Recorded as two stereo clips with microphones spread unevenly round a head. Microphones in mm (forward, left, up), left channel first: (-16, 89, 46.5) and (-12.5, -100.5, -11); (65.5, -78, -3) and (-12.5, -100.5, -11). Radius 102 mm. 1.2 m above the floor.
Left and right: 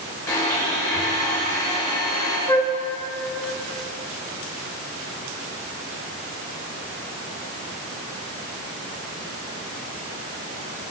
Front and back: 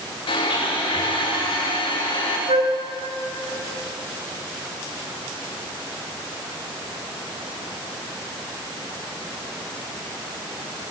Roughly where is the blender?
Ahead.